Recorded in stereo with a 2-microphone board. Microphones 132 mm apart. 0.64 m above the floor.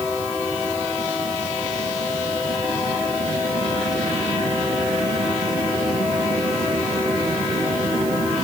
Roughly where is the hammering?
I don't hear hammering.